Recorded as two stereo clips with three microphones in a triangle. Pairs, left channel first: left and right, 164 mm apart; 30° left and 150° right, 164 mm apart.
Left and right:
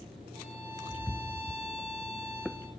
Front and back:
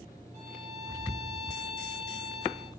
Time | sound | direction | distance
0.3 | a violin | 115° right | 2 m